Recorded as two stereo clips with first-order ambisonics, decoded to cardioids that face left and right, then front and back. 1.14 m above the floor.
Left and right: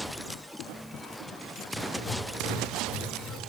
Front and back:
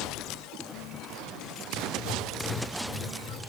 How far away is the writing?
About 2 m.